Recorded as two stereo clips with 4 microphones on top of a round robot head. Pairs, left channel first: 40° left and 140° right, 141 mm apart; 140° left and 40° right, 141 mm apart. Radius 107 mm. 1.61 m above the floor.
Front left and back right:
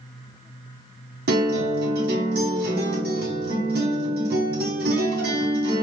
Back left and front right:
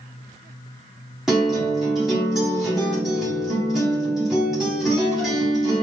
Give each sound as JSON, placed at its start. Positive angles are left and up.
{"t": 1.3, "sound": "a guitar", "azimuth_deg": -130, "distance_m": 0.7}